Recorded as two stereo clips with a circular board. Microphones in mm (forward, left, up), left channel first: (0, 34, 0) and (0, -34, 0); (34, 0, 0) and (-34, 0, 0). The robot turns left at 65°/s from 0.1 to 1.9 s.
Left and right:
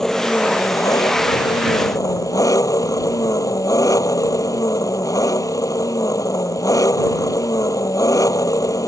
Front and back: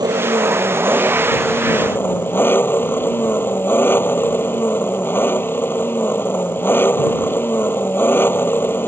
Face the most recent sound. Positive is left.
turn(degrees=60)